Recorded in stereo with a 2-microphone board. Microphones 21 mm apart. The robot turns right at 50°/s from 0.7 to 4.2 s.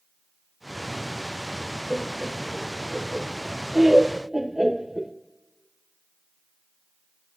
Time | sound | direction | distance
1.9 | laughter | 10° right (ahead or behind) | 0.8 m